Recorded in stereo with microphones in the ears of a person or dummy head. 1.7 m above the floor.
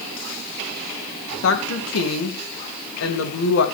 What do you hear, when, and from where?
1.4 s a woman speaking: 80° left, 3 m; by 3.6 s 60° left (ahead or behind), 3 m